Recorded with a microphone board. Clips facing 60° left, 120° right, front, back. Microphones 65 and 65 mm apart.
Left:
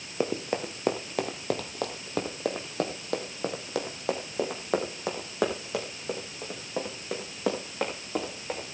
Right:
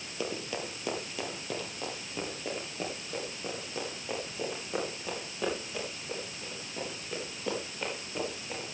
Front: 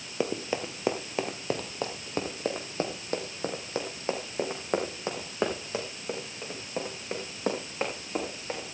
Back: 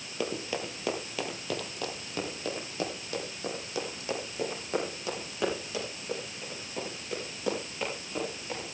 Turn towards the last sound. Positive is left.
turn(degrees=45)